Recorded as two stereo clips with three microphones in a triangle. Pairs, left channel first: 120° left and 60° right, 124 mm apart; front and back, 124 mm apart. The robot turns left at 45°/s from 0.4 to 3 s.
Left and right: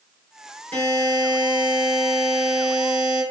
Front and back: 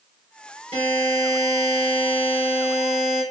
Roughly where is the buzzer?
Behind.